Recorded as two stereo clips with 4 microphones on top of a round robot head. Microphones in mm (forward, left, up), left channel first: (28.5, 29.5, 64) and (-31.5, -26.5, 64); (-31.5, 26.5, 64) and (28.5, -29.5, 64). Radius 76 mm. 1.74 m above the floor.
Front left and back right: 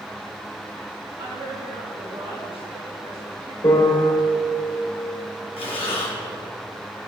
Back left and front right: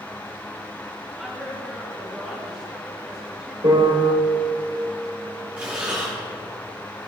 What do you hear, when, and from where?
1.2 s a woman speaking: 125° right, 2.5 m
3.6 s a piano: 10° right, 2.5 m
5.6 s breathing: 30° left, 2 m